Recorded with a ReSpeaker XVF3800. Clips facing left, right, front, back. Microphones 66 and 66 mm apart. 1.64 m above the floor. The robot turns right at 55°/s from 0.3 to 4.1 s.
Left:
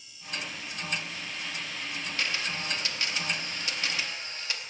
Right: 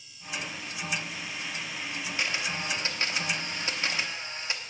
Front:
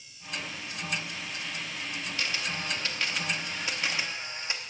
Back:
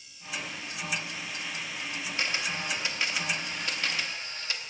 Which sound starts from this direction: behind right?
A camera shutter, at 2.2 s.